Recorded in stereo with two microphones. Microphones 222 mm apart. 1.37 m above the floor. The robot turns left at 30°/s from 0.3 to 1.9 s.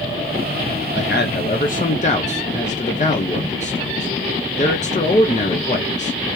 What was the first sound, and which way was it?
A man speaking, 55° left (ahead or behind).